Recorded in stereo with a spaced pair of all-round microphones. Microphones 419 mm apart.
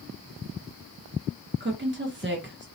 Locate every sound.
1.6 s a woman speaking: 30° right (ahead or behind), 0.6 m